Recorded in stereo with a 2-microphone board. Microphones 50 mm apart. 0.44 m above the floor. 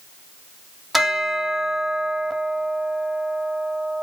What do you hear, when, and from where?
0.9 s a bell: centre (ahead or behind), 0.8 m